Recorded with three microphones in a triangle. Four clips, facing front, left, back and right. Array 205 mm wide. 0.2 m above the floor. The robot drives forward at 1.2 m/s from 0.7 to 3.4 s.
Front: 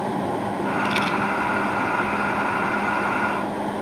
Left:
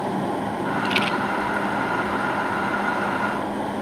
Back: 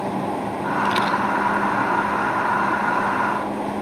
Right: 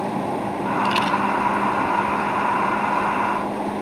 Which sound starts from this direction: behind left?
A rattle, at 0.8 s.